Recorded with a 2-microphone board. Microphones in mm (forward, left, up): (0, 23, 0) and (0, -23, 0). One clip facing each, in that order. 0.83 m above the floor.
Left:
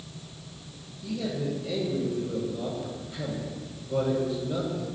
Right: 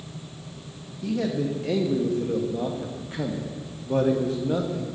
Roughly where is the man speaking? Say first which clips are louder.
Right 5 dB; right.